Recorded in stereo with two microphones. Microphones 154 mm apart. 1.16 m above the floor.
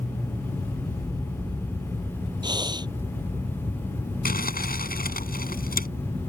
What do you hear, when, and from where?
2.4 s breathing: 25° right (ahead or behind)
4.2 s crumpling: 75° left (ahead or behind)